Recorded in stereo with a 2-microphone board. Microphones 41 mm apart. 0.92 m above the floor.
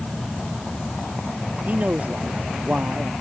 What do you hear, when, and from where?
1.7 s a man speaking: 35° right (ahead or behind)